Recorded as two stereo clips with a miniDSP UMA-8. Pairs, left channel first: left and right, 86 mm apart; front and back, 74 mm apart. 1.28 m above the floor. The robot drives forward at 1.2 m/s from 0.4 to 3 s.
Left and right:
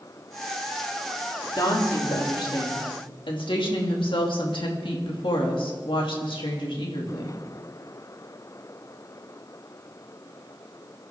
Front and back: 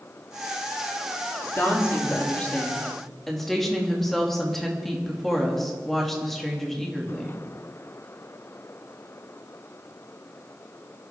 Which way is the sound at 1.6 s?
55° left.